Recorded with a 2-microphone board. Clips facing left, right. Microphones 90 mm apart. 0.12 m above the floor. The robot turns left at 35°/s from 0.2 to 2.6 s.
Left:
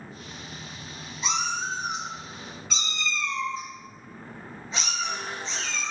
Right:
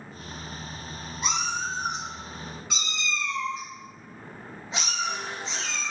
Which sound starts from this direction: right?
A cat meowing, at 1.2 s.